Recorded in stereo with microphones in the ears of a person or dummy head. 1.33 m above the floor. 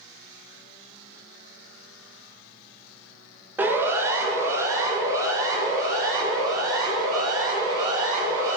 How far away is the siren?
About 2 m.